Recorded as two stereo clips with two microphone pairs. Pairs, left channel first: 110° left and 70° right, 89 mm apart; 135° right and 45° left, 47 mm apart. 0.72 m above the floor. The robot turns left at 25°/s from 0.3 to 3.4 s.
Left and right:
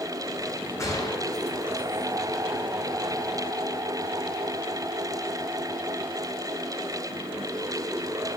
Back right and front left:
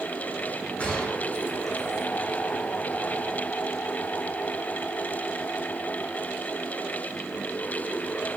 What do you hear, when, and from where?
0.8 s a gunshot: 165° left, 8 m; by 2.1 s 130° left, 8 m